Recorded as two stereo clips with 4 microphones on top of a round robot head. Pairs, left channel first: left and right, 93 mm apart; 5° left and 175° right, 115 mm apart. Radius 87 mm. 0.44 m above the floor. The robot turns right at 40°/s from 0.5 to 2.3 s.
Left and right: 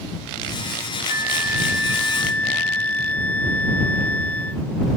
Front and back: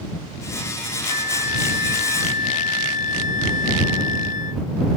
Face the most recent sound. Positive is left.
turn(degrees=15)